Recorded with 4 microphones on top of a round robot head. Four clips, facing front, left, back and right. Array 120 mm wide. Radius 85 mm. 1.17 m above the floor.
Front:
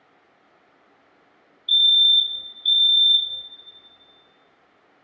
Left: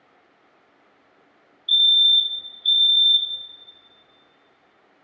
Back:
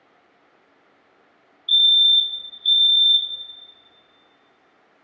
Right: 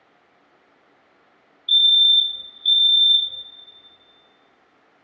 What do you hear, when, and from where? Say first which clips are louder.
1.7 s a fire alarm: right 1 dB, back 1 dB; 40° right, 1.2 m